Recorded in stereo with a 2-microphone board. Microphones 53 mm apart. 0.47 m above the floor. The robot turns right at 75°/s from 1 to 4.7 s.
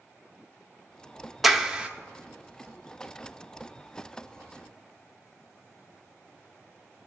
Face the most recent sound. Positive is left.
turn(degrees=70)